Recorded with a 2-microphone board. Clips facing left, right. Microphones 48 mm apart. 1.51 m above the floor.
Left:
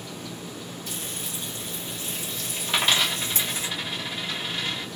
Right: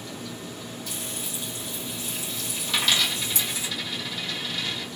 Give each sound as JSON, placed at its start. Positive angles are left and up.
{"t": 0.9, "sound": "frying", "side_deg": 40, "distance_m": 1.8}
{"t": 2.7, "sound": "a dropped coin", "side_deg": 30, "distance_m": 1.1}